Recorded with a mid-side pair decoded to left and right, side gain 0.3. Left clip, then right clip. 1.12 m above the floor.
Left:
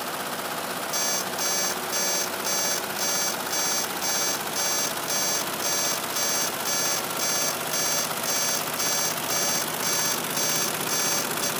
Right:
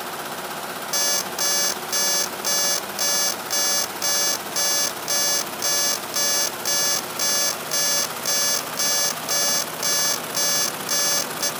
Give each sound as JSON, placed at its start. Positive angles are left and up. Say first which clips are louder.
{"t": 0.9, "sound": "an alarm clock", "louder": "right 5 dB", "azimuth_deg": -60, "distance_m": 0.5}